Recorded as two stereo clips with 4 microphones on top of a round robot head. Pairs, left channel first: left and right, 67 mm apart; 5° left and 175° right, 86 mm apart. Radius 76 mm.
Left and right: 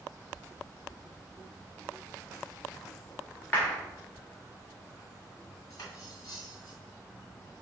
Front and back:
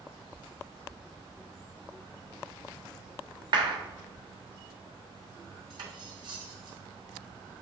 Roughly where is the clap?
Behind.